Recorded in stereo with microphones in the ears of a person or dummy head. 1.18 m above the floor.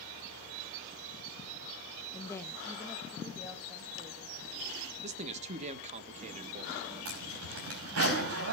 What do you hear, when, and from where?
2.1 s a woman speaking: 20° left (ahead or behind), 0.7 m; by 4.9 s 15° right (ahead or behind), 2.5 m
5.0 s a man speaking: 45° right (ahead or behind), 1.3 m
7.0 s a zipper: 75° right (ahead or behind), 4.5 m